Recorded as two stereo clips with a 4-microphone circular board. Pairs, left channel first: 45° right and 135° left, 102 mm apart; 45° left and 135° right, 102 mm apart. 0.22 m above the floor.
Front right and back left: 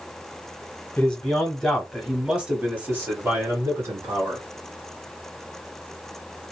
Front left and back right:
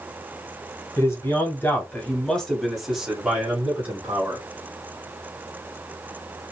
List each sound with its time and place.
1.0 s a man speaking: 20° left, 1.5 m; by 4.4 s 170° left, 1.7 m